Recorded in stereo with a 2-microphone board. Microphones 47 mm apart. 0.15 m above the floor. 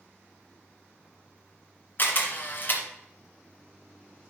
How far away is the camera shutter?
About 1.7 m.